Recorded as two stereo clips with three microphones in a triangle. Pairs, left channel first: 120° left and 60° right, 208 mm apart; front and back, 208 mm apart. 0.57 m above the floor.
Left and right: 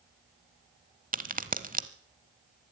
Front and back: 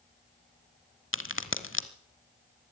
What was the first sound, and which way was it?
A crack, 10° right.